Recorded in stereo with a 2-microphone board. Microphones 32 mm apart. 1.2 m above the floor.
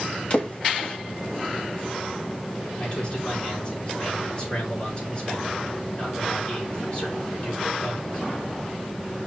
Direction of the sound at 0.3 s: 35° left (ahead or behind).